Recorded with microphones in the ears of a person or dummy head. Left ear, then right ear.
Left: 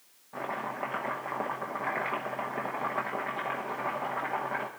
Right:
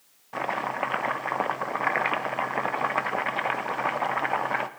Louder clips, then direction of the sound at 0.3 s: Right 6 dB; 60° right (ahead or behind).